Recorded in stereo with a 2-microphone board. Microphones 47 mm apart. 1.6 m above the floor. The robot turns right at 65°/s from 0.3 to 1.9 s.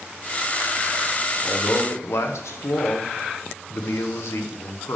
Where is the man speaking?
60° left, 1.4 m; by 5.0 s 90° left, 1.4 m.